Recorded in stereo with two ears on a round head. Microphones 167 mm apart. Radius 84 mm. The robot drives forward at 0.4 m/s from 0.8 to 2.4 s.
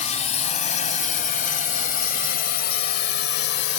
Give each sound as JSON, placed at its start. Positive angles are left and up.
{"t": 0.0, "sound": "a drone", "side_deg": 35}